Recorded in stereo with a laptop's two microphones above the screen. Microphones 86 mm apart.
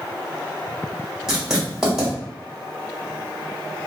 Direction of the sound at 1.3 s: 5° right (ahead or behind).